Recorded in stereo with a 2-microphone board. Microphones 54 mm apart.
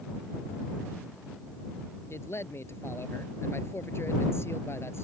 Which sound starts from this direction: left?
A man speaking, at 2.1 s.